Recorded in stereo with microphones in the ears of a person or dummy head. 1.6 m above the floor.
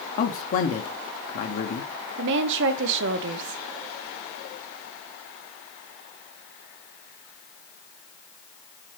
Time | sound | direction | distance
0.2 | a man speaking | 50° left (ahead or behind) | 1.3 m
2.2 | a woman speaking | 65° right (ahead or behind) | 0.9 m